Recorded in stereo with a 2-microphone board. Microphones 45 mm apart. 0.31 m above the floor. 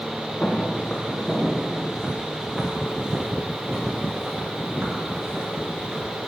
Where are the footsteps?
25° left (ahead or behind), 3.5 m; by 6.0 s 45° right (ahead or behind), 9 m.